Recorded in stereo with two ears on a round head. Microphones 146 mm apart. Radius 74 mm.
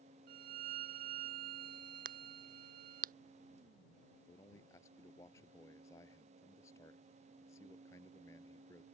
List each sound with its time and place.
0.3 s a violin: 55° right (ahead or behind)
2.0 s a crack: 50° right (ahead or behind)
4.3 s a man speaking: 15° left (ahead or behind)